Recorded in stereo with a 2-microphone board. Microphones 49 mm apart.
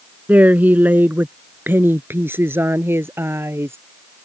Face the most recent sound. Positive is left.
turn(degrees=-60)  # may be behind; listen again after turning